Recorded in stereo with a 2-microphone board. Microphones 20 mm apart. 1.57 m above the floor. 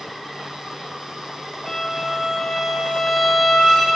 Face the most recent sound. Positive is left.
turn(degrees=20)  # may be behind; listen again after turning